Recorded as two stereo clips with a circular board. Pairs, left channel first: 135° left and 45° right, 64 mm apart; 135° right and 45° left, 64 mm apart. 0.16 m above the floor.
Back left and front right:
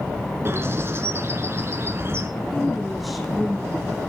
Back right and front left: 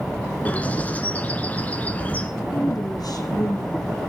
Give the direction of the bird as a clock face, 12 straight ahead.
3 o'clock.